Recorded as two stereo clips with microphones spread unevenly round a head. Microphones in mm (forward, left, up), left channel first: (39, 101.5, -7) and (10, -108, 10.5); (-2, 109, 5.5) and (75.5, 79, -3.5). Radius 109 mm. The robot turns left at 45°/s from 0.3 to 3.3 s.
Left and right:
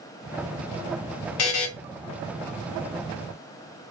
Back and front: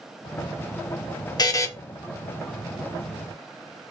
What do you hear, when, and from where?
1.4 s a buzzer: 115° left, 0.8 m; by 1.7 s 100° left, 0.8 m